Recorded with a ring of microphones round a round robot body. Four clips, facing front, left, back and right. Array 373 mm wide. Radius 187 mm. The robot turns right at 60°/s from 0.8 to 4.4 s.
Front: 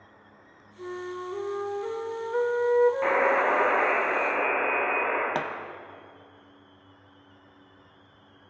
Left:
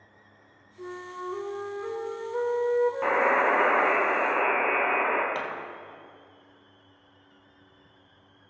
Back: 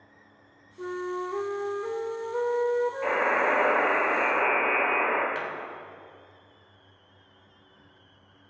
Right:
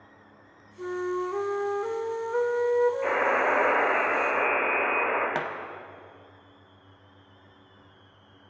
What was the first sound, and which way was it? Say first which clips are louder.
A flute: right 8 dB, back 3 dB; 145° right.